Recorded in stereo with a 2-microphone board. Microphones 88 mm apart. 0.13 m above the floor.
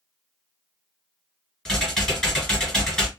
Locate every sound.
1.6 s typing on a keyboard: 5° left (ahead or behind), 1.8 m